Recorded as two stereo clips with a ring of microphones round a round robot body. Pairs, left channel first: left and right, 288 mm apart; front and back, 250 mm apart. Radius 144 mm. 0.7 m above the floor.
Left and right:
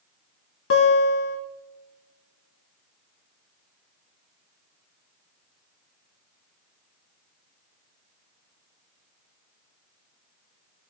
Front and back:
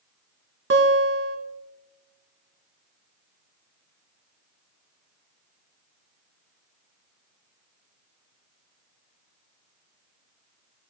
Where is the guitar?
140° left, 2.5 m.